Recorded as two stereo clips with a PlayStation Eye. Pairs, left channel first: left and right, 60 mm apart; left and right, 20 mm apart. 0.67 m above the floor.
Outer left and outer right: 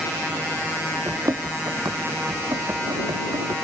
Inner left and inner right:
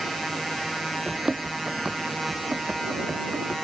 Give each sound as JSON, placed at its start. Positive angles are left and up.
{"t": 1.1, "sound": "running footsteps", "side_deg": -60}